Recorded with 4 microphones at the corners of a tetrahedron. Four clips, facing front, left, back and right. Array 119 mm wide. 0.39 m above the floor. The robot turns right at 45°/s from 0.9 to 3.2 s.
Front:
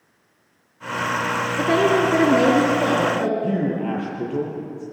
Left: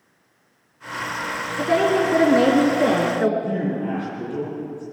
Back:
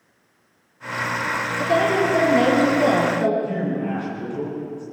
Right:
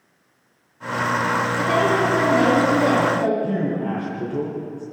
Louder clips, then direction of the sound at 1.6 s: Left 3 dB, front 1 dB; 20° left.